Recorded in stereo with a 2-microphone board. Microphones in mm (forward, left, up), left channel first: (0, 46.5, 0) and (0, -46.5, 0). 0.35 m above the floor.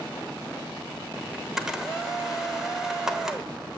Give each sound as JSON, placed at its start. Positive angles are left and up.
{"t": 1.3, "sound": "a camera shutter", "side_deg": -5, "distance_m": 1.1}